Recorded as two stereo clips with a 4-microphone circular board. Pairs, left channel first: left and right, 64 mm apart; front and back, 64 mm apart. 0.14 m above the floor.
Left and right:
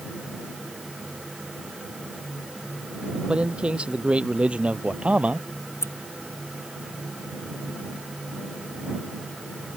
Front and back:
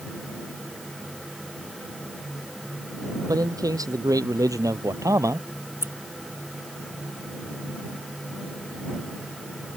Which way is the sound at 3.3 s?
165° right.